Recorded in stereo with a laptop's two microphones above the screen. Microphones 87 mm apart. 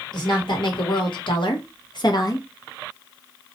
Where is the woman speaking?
60° left (ahead or behind), 1.3 m; by 2.5 s 40° left (ahead or behind), 0.6 m.